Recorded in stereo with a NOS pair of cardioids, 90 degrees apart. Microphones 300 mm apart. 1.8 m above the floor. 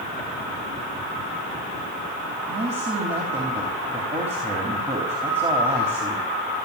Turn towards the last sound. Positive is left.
turn(degrees=-20)